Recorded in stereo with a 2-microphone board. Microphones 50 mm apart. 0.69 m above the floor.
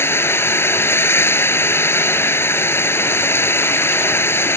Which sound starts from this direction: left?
Running water, at 0.0 s.